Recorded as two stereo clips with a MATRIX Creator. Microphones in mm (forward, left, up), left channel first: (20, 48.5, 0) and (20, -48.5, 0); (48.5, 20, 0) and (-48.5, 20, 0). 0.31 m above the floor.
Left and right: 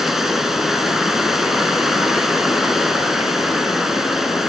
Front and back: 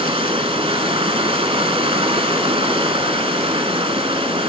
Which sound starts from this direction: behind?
Running water, at 0.0 s.